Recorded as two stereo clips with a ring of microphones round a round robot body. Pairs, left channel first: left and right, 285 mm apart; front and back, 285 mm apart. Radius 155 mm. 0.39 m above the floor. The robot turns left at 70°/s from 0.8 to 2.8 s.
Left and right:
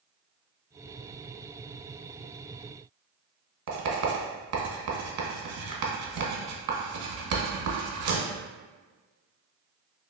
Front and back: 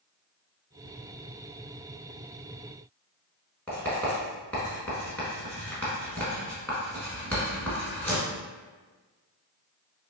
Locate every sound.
3.7 s writing: 85° right, 1.0 m